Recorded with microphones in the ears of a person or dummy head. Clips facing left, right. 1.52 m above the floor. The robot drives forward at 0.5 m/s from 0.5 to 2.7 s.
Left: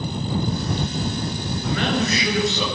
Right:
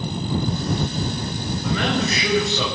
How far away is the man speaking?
About 7.5 m.